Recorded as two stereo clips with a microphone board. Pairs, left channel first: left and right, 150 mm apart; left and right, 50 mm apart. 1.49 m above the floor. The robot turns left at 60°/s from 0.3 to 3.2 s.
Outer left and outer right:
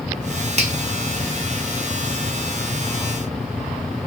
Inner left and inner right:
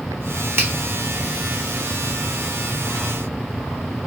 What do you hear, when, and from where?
0.6 s a finger snap: 45° right (ahead or behind), 1.0 m; by 0.7 s 55° right (ahead or behind), 1.0 m